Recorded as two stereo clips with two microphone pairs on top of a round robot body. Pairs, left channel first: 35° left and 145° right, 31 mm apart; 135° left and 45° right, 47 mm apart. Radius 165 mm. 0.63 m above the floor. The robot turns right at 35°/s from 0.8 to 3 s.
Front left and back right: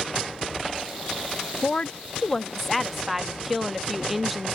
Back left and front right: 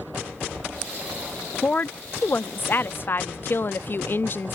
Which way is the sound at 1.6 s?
90° left.